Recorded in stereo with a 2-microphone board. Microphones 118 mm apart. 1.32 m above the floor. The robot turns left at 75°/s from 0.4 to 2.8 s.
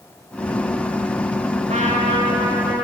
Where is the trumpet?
95° right, 1.9 m; by 2.9 s straight behind, 1.9 m.